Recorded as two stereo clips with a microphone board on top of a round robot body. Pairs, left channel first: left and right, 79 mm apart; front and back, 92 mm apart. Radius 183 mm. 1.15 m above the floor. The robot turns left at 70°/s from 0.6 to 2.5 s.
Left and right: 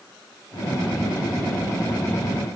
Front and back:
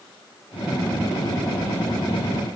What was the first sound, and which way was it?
Only background noise.